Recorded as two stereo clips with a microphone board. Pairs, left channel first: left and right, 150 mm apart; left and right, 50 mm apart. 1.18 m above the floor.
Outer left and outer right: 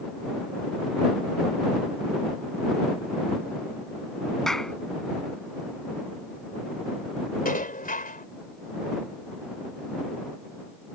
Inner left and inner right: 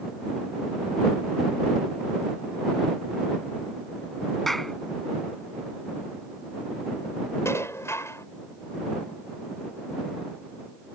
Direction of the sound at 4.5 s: 5° left (ahead or behind).